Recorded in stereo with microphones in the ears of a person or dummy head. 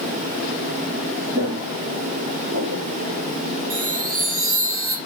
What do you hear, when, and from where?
1.3 s footsteps: 60° right (ahead or behind), 3 m; by 2.9 s 40° right (ahead or behind), 1.8 m
3.7 s a chime: 80° right, 3 m